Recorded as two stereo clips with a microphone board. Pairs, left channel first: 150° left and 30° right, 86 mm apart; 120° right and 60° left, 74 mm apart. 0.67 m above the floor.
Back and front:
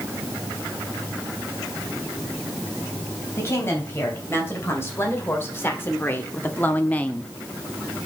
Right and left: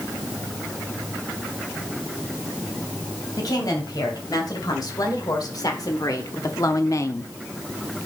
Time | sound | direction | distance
3.4 | a woman speaking | 150° right | 3.5 m